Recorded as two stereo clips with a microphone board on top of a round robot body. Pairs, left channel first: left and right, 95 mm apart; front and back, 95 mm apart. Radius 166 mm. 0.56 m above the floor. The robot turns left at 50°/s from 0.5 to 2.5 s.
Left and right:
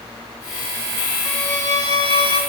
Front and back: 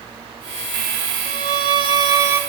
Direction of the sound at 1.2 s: 175° left.